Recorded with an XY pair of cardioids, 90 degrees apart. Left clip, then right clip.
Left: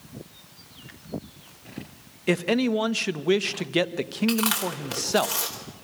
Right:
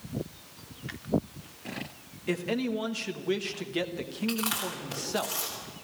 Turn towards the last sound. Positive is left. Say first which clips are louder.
# left 5 dB
turn(degrees=65)